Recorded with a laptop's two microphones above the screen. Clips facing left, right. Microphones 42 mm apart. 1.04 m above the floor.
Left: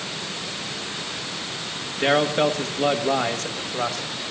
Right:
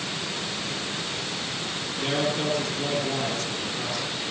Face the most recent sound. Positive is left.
turn(degrees=50)  # may be behind; listen again after turning